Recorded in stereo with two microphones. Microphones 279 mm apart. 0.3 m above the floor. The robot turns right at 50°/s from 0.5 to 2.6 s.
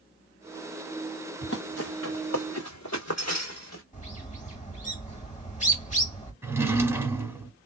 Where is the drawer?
10° right (ahead or behind), 0.7 m.